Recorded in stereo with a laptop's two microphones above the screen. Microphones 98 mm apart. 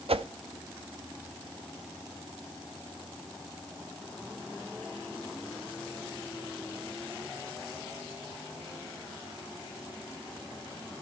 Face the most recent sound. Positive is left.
turn(degrees=-70)  # may be behind; listen again after turning